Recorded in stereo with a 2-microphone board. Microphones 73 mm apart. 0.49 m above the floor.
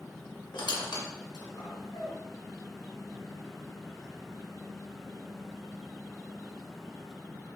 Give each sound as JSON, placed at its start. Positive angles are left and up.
{"t": 0.5, "sound": "a squeak", "side_deg": 80, "distance_m": 0.5}